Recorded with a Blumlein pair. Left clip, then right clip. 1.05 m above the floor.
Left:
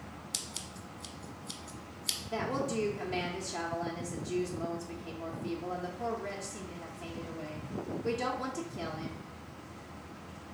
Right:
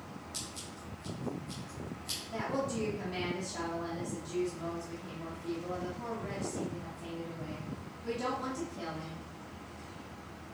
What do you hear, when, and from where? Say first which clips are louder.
0.3 s scissors: left 4 dB; 45° left, 1.1 m
2.3 s a woman speaking: left 1 dB; 70° left, 0.8 m